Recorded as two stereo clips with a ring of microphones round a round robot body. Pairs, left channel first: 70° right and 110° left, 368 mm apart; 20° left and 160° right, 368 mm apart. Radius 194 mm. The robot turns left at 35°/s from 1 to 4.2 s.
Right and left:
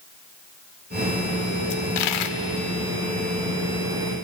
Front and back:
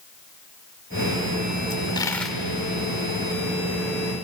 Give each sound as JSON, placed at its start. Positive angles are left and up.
{"t": 1.7, "sound": "a dropped coin", "azimuth_deg": -45, "distance_m": 1.2}